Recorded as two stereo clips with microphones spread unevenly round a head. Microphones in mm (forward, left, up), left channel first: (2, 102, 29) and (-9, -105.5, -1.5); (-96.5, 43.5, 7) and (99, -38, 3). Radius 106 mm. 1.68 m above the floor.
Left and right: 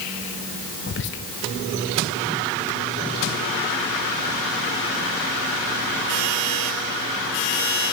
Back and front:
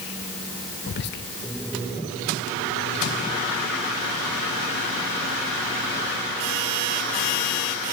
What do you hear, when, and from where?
0.9 s whispering: 115° left, 0.5 m